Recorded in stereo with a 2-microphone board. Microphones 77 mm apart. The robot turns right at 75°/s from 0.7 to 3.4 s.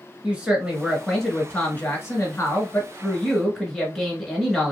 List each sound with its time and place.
0.2 s a woman speaking: 25° right, 1.2 m; by 4.7 s 175° left, 1.2 m